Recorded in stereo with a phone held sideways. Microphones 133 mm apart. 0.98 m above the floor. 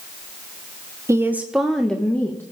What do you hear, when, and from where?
1.1 s a woman speaking: 20° right (ahead or behind), 0.8 m; by 2.4 s 15° left (ahead or behind), 1.4 m